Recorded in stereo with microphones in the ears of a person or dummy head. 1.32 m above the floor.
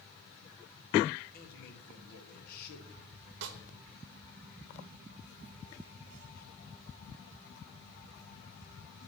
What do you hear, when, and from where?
1.3 s a man speaking: 55° left (ahead or behind), 2.5 m
3.4 s a snare drum: 70° right (ahead or behind), 0.9 m